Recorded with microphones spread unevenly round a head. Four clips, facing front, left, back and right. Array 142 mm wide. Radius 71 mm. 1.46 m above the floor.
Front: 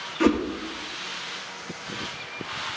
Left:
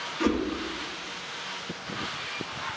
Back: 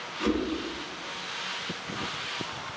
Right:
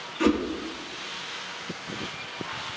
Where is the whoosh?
10° right, 1.4 m.